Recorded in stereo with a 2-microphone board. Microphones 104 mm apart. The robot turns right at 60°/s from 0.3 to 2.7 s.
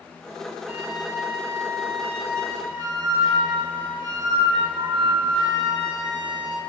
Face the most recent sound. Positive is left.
turn(degrees=-45)